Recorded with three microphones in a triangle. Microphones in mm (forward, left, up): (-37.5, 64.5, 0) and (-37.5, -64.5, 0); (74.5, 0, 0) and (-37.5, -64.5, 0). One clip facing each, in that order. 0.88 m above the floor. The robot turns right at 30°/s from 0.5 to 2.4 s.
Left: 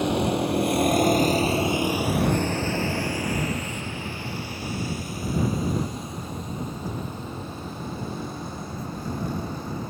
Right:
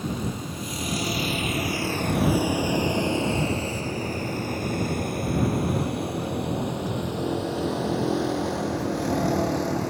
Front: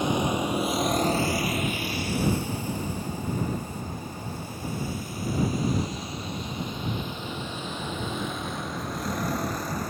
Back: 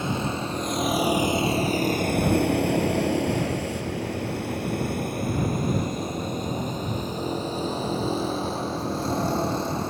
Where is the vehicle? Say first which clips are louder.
Left 7 dB, front 2 dB; 100° left; by 9.9 s 85° right.